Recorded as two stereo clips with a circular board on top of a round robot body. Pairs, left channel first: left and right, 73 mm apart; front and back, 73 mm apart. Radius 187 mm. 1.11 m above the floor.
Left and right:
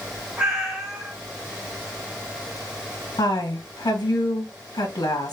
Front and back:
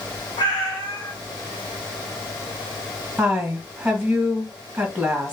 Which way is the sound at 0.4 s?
20° right.